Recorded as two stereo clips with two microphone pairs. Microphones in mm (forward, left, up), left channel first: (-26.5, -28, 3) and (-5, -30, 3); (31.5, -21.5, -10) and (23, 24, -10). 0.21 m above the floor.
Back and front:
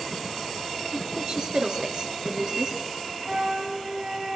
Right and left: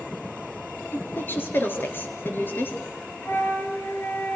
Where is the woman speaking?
45° right, 4 m.